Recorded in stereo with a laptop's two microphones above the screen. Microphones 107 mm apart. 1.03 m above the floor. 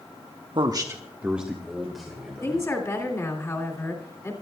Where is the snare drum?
I don't hear a snare drum.